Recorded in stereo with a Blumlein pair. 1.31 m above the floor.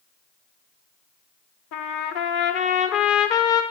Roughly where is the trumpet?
Ahead left.